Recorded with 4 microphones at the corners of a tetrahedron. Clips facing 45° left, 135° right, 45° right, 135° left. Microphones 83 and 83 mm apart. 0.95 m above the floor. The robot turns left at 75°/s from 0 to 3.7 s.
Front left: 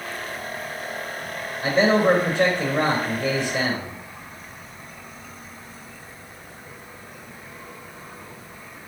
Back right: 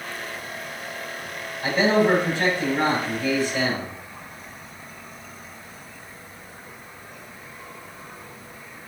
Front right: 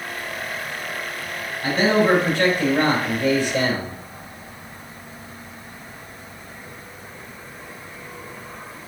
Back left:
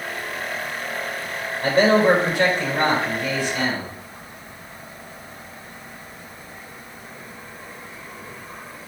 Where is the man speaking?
110° left, 3.5 m; by 3.9 s 50° right, 3.5 m.